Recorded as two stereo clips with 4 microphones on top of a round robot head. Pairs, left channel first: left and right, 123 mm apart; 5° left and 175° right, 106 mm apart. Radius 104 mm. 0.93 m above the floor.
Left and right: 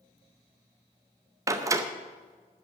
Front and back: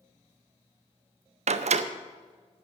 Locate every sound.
1.5 s a door slam: 155° right, 0.7 m